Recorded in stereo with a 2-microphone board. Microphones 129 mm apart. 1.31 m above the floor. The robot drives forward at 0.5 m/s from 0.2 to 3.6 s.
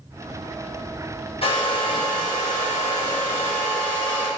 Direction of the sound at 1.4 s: 50° left (ahead or behind).